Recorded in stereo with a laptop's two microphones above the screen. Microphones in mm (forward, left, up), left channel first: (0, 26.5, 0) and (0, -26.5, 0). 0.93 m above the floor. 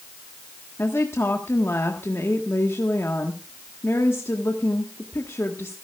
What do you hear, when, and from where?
0.8 s a woman speaking: 60° left (ahead or behind), 1.5 m